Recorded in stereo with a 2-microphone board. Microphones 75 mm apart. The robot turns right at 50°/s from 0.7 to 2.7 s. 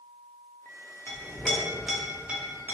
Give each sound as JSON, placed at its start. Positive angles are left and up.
{"t": 1.1, "sound": "a clink", "side_deg": 30, "distance_m": 0.7}